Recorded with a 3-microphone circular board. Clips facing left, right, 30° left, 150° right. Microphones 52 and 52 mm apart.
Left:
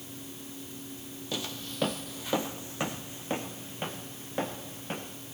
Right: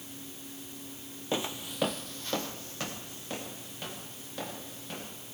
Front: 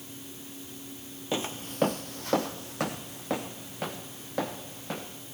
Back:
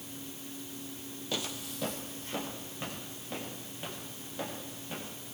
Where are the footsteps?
35° right, 0.8 m; by 5.1 s 35° left, 4 m.